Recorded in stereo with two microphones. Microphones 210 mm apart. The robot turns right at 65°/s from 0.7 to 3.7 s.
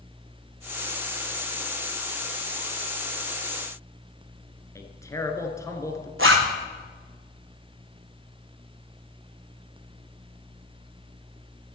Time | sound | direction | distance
4.8 | a man speaking | 15° left (ahead or behind) | 1.3 m
6.2 | a zipper | 75° right (ahead or behind) | 2.0 m